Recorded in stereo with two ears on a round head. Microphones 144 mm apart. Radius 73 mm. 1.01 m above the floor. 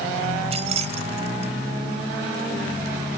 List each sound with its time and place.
0.5 s keys jangling: 40° right (ahead or behind)